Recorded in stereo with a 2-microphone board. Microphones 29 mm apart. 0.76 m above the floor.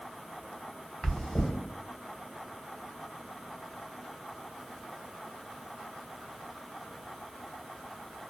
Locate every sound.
1.0 s chewing: 15° left (ahead or behind), 1.2 m